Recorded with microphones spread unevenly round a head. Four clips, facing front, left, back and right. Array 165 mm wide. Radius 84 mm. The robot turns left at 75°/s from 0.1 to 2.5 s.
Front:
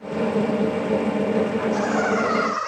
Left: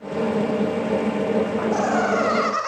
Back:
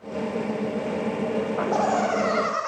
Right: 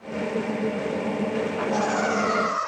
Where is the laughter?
165° left, 9 m; by 2.7 s 95° left, 9 m.